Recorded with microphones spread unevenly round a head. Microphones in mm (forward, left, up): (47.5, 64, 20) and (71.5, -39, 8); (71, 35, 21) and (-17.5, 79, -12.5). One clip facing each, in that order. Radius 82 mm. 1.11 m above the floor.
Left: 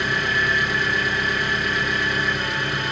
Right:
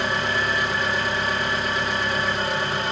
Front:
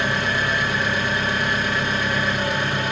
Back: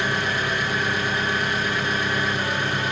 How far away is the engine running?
About 1.9 m.